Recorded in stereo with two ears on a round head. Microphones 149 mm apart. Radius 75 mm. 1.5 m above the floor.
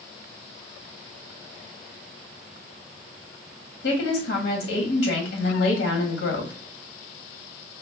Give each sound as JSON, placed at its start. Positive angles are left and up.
{"t": 3.8, "sound": "a woman speaking", "side_deg": 75, "distance_m": 1.5}